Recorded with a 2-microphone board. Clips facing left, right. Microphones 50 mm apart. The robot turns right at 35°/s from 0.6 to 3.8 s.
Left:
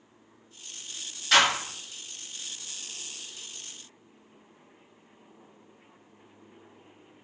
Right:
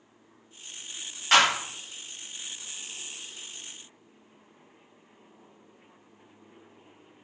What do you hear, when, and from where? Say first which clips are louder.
1.3 s a clap: right 1 dB; 50° right (ahead or behind), 1.6 m; by 1.5 s 55° right (ahead or behind), 1.6 m